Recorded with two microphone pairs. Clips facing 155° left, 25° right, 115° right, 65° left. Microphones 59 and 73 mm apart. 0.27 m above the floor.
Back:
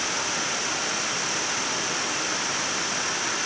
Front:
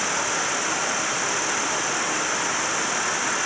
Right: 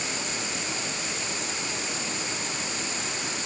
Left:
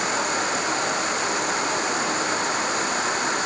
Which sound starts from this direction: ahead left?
An insect, at 0.0 s.